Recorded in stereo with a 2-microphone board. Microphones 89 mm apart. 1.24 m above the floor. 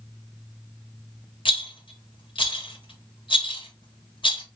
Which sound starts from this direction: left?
A rattle, at 1.4 s.